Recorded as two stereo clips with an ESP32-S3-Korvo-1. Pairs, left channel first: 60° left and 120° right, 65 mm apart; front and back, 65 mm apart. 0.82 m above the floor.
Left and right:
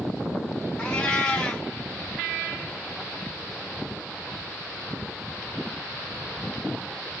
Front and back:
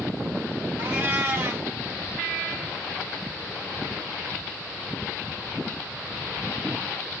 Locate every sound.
0.8 s a cat meowing: 130° left, 0.6 m